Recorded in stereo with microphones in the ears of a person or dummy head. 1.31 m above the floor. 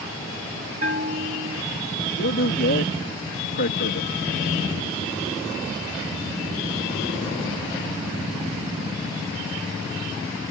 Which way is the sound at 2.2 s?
55° left (ahead or behind).